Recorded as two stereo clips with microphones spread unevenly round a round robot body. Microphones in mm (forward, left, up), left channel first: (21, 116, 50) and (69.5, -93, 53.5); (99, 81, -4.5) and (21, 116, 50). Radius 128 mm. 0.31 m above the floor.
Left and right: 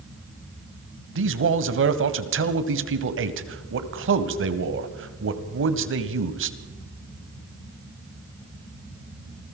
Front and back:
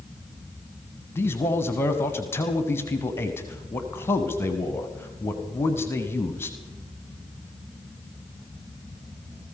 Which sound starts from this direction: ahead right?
A man speaking, at 1.1 s.